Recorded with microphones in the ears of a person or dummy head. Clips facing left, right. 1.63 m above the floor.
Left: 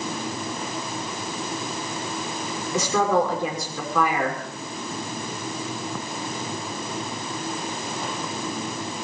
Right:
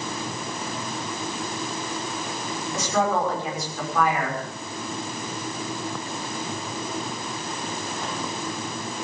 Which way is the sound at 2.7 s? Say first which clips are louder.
Left 3 dB; 70° left (ahead or behind).